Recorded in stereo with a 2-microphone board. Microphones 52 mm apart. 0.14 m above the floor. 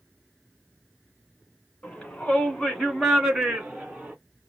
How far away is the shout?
About 1.5 m.